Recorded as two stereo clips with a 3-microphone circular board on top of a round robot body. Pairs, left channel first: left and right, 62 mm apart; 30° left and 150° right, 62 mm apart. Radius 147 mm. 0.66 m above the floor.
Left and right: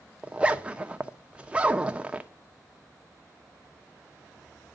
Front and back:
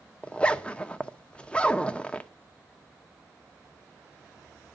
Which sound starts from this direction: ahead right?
A zipper, at 0.2 s.